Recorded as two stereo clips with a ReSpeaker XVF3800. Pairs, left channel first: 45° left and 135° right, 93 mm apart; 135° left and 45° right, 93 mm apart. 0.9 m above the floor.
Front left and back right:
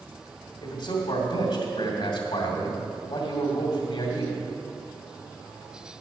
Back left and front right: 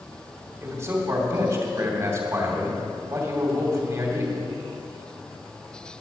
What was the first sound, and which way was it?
A man speaking, 15° left.